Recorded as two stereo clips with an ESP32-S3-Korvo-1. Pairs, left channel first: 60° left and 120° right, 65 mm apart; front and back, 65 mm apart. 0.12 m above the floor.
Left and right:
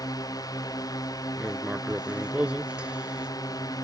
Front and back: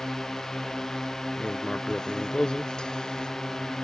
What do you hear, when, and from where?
0.0 s a drone: 80° left
1.4 s writing: 65° right